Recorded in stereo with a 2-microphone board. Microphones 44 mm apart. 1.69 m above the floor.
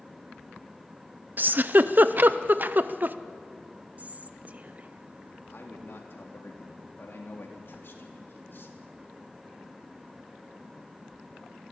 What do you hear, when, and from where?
1.4 s a giggle: 45° right (ahead or behind), 0.6 m
4.0 s whispering: 35° right (ahead or behind), 1.0 m
5.5 s a man speaking: 55° left (ahead or behind), 3.5 m